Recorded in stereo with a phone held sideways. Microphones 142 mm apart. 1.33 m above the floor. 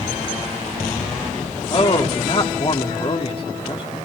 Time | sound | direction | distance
1.7 | a man speaking | 40° left (ahead or behind) | 2.5 m